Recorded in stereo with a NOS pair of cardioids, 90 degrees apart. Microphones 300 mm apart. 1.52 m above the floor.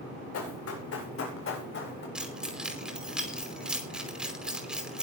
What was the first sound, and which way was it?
Running footsteps, 55° left.